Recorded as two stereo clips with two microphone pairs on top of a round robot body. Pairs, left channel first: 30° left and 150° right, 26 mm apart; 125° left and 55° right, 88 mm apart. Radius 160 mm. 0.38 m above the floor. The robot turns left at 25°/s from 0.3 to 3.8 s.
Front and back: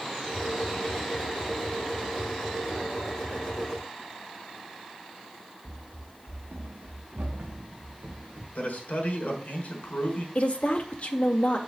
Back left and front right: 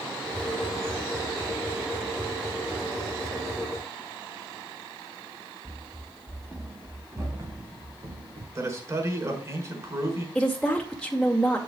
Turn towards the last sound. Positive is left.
turn(degrees=40)